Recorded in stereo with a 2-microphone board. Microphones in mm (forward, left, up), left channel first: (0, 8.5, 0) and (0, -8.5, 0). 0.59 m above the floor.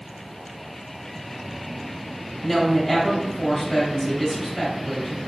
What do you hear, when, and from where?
2.4 s a woman speaking: centre (ahead or behind), 1.2 m